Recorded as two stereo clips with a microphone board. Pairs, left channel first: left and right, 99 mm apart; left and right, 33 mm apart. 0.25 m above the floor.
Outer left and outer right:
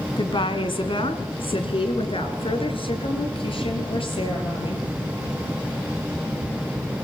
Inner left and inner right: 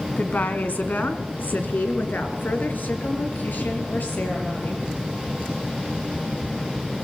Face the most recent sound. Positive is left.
turn(degrees=60)  # may be behind; listen again after turning